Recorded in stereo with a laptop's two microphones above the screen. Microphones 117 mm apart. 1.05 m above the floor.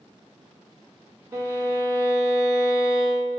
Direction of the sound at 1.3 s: 20° right (ahead or behind).